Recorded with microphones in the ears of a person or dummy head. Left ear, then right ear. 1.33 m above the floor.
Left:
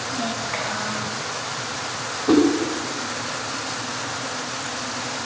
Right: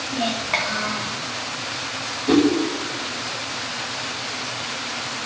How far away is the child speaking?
About 3 m.